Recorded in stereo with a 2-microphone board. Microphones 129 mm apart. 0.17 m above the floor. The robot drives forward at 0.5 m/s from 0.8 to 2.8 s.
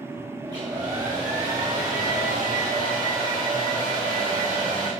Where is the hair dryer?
30° right (ahead or behind), 5 m; by 4.9 s 25° right (ahead or behind), 6 m.